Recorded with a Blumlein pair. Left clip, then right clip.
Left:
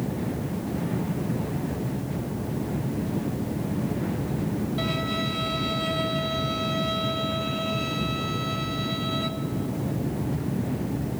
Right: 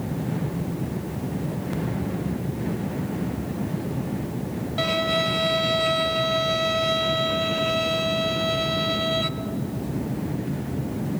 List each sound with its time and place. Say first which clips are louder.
4.8 s a violin: right 8 dB; 20° right, 1.0 m